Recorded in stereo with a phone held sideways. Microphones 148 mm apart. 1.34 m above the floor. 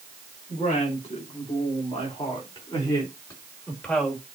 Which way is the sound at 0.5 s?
55° left (ahead or behind).